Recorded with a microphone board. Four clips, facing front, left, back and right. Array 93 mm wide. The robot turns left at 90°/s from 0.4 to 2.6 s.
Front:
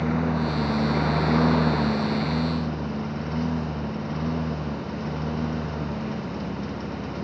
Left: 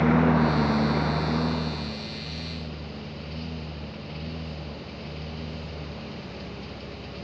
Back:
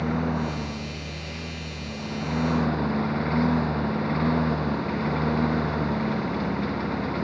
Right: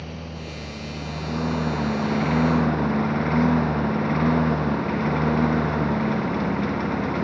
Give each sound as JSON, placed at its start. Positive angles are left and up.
{"t": 0.0, "sound": "a lawn mower", "azimuth_deg": 90}